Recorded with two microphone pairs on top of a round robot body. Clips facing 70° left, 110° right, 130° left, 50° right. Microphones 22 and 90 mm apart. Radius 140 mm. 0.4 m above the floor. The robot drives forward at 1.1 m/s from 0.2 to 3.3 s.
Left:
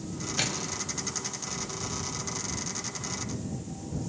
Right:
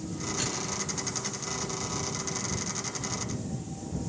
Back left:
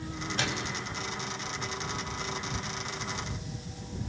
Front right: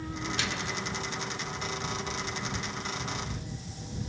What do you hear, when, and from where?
0.4 s a microwave: 90° left, 2.5 m; by 0.8 s 100° left, 2.5 m